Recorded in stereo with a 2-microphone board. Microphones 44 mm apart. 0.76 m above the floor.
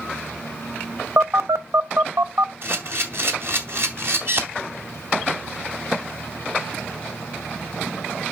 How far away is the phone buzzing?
About 0.6 m.